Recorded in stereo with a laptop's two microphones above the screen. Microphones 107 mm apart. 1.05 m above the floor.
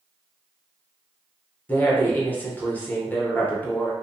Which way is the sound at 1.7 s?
15° left (ahead or behind).